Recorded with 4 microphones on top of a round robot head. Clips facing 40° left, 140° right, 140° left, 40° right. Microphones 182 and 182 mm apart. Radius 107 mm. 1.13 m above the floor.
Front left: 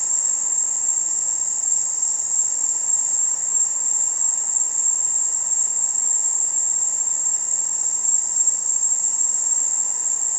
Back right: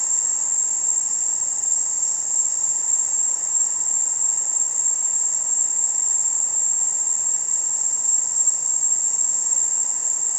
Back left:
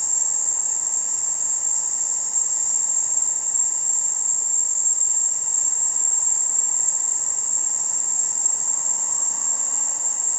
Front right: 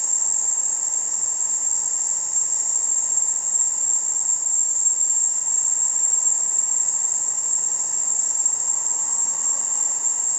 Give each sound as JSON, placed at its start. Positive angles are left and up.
{"t": 0.0, "sound": "an insect", "azimuth_deg": -40, "distance_m": 0.9}